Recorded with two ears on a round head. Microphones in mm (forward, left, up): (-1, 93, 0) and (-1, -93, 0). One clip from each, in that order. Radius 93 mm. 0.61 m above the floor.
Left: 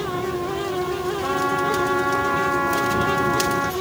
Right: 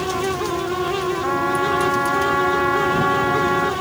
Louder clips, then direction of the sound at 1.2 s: Even; 10° right (ahead or behind).